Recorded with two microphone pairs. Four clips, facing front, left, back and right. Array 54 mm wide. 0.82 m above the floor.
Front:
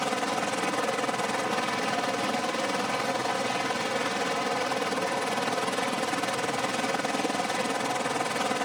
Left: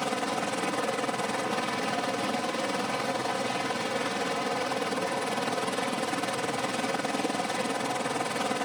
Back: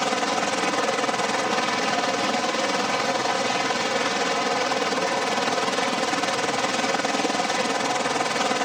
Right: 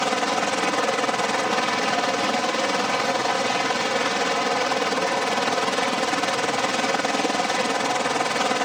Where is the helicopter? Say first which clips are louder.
Right 7 dB, back 5 dB; 115° right.